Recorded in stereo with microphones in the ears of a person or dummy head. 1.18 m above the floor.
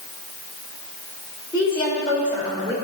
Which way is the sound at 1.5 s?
25° left (ahead or behind).